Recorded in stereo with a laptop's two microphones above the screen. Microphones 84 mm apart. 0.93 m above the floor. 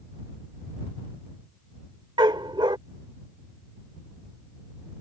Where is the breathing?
No breathing in this recording.